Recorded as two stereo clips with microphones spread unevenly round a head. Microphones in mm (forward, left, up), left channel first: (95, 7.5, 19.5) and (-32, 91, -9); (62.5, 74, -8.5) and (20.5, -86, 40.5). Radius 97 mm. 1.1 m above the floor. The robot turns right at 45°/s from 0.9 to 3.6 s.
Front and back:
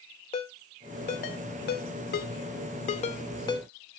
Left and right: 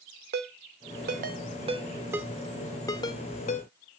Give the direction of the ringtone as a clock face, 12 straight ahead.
3 o'clock.